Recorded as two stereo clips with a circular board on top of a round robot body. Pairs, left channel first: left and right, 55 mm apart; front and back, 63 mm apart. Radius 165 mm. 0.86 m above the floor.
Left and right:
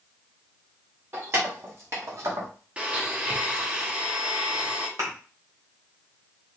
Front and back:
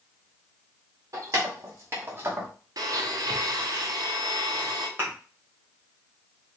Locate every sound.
1.1 s keys jangling: 135° right, 1.7 m; by 2.5 s 115° right, 0.9 m
2.8 s a blender: 160° right, 0.9 m
5.0 s a thud: 120° right, 1.4 m